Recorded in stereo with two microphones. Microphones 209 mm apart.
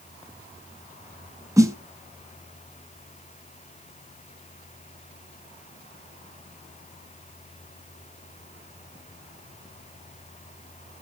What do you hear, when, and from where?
1.6 s a snare drum: 15° right (ahead or behind), 1.2 m